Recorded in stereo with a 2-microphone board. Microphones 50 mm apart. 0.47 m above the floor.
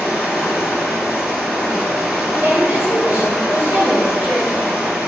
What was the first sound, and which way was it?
Running water, 10° right (ahead or behind).